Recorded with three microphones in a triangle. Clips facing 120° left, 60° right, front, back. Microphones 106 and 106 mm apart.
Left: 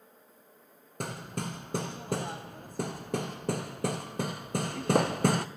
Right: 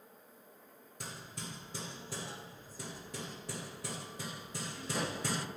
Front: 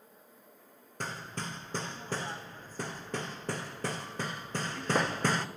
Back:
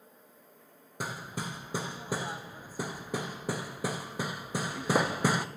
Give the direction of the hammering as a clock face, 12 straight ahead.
9 o'clock.